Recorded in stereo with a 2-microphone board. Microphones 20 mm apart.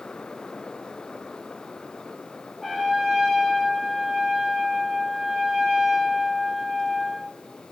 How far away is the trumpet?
About 3 m.